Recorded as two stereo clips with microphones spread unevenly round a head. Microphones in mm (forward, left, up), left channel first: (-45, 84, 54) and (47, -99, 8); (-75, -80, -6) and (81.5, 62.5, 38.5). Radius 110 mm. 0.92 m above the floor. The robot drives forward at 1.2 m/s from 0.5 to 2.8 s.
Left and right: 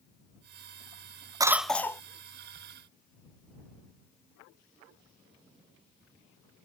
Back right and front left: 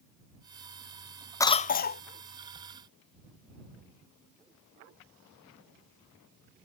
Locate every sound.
1.4 s a cough: 95° right; by 2.0 s 160° right